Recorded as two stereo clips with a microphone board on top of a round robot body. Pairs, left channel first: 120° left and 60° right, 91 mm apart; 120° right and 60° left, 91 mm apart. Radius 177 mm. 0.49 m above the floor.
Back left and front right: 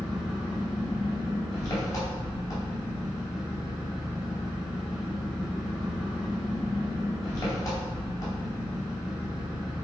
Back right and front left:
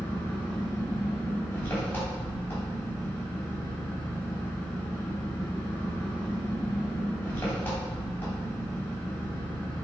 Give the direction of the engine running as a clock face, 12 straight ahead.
6 o'clock.